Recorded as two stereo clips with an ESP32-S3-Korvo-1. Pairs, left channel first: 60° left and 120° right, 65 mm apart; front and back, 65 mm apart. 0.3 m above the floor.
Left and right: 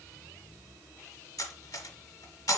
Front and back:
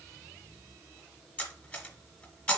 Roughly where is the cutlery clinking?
Ahead left.